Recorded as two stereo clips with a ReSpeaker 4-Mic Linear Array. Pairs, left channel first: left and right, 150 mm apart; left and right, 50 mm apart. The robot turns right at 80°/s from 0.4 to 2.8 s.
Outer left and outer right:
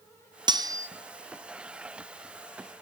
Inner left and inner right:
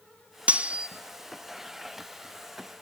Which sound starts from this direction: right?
Cutlery clinking, at 0.5 s.